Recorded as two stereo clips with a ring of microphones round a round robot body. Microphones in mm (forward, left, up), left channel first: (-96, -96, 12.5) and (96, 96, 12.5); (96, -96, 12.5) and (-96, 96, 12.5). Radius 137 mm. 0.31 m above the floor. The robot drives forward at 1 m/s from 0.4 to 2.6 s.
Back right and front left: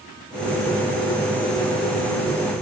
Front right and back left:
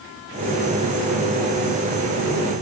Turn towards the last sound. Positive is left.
No sound to turn to.